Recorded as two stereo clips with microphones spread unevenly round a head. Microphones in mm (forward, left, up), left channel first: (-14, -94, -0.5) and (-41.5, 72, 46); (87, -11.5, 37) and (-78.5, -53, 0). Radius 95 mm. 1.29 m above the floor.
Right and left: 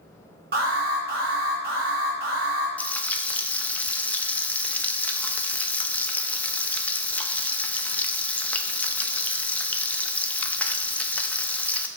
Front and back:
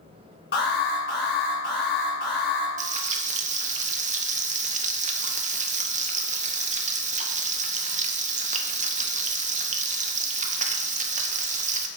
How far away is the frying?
About 0.8 m.